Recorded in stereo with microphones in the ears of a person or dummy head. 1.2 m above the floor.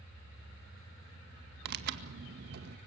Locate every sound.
1.6 s tearing paper: 60° right (ahead or behind), 2.0 m